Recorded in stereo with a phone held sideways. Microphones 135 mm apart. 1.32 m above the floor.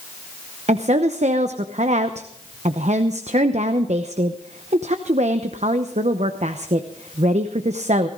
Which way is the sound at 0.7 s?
55° right (ahead or behind).